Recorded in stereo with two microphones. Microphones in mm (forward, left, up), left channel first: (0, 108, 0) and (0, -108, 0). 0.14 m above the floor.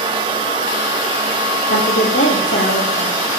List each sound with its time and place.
1.7 s a woman speaking: 70° left (ahead or behind), 5 m; by 3.1 s 65° left (ahead or behind), 4.5 m